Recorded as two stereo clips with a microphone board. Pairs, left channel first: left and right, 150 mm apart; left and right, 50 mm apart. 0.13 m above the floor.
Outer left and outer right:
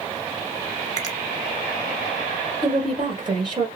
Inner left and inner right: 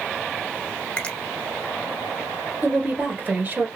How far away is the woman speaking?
About 1.8 m.